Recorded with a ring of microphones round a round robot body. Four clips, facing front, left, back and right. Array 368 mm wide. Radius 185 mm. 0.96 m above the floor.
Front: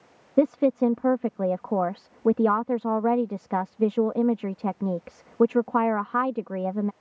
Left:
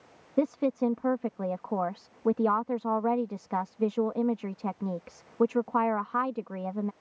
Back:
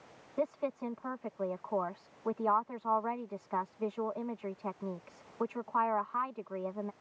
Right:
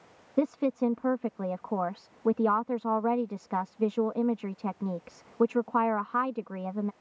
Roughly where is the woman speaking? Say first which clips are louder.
Even, front 14 dB; ahead.